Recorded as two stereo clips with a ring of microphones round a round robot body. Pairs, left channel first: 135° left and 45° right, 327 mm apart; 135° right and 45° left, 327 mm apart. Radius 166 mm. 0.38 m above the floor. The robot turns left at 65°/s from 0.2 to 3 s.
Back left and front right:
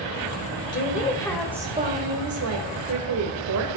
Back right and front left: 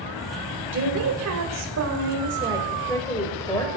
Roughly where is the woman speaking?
Left.